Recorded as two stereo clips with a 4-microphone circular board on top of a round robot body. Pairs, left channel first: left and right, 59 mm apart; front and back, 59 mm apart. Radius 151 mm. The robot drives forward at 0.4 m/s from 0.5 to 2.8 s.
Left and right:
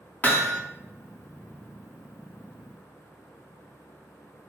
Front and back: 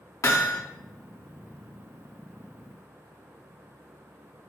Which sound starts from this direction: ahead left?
Hammering, at 0.2 s.